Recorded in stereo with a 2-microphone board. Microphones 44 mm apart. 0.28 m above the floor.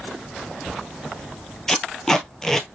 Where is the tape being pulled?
10° left (ahead or behind), 0.9 m.